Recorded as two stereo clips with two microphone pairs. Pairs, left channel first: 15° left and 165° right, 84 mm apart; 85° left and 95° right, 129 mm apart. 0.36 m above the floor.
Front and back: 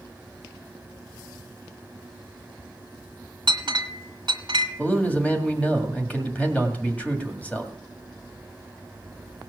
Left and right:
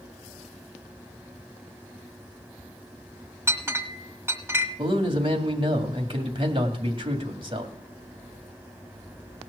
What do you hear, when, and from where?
3.5 s a clink: 165° right, 1.5 m
4.8 s a man speaking: 55° right, 2 m